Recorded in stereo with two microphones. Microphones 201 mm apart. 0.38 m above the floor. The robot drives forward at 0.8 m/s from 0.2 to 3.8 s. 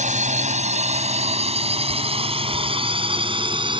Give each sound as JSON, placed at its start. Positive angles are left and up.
{"t": 0.0, "sound": "a drone", "side_deg": -40}